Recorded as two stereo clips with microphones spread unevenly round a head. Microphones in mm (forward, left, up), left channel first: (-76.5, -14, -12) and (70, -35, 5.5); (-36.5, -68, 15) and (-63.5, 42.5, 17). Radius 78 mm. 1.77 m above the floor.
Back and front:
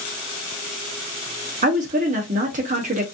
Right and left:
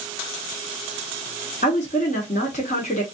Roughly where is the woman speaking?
Ahead right.